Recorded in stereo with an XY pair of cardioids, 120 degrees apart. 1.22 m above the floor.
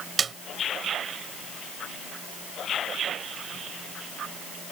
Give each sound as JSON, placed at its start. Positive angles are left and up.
{"t": 0.2, "sound": "a snare drum", "azimuth_deg": -35}